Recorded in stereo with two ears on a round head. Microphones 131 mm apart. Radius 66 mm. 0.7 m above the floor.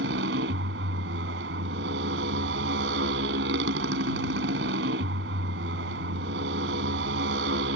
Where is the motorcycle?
85° right.